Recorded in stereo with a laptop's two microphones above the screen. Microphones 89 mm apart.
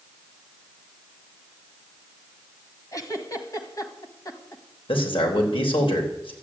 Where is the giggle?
40° left (ahead or behind), 1.5 m.